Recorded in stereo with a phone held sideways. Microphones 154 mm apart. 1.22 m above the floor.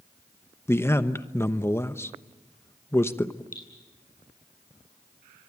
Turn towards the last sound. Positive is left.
turn(degrees=60)  # may be behind; listen again after turning